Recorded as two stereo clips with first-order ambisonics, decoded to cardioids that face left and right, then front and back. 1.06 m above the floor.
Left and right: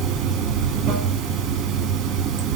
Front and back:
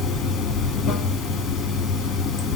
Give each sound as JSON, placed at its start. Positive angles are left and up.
{"t": 0.0, "sound": "running water", "azimuth_deg": -50, "distance_m": 1.9}